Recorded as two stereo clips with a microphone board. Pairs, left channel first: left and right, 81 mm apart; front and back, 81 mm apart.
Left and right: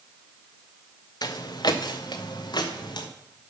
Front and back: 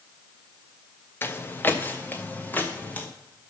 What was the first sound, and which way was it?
Footsteps, 60° left.